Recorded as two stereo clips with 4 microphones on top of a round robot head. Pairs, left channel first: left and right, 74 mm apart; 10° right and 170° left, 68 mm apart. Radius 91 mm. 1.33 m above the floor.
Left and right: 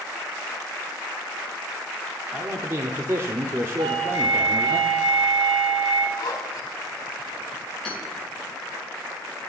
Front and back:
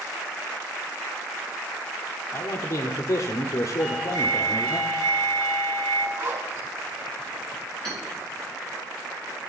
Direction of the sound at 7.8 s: 170° left.